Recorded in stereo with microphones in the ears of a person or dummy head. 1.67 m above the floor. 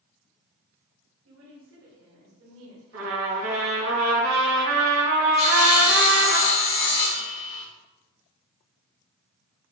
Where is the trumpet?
85° right, 2 m.